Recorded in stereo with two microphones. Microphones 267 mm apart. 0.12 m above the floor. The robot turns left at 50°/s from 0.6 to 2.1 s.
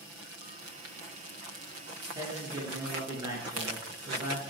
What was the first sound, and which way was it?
A man speaking, 15° right (ahead or behind).